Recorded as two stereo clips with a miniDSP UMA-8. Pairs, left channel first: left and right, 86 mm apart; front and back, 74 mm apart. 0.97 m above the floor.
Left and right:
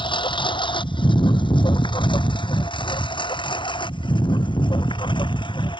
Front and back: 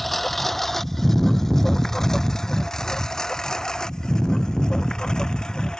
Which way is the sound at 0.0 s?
85° left.